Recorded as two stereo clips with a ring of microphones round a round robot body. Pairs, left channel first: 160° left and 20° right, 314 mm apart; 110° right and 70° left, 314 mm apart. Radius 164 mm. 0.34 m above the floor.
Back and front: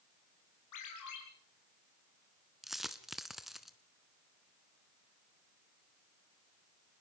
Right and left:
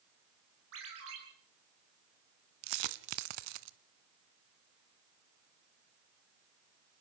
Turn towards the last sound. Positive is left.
turn(degrees=65)